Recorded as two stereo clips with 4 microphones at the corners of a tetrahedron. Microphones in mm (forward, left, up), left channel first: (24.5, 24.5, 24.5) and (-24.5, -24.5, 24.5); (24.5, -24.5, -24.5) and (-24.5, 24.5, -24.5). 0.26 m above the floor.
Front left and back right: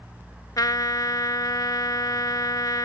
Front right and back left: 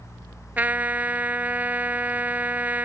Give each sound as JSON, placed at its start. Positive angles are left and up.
{"t": 0.6, "sound": "a trumpet", "azimuth_deg": 70}